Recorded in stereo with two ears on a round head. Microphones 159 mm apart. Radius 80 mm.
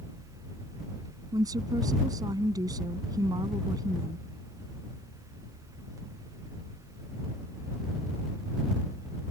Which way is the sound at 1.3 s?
20° right (ahead or behind).